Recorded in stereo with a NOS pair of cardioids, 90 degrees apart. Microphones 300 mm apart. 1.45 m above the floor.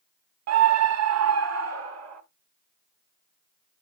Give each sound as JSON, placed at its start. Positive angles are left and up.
{"t": 0.5, "sound": "a scream", "azimuth_deg": -60, "distance_m": 0.6}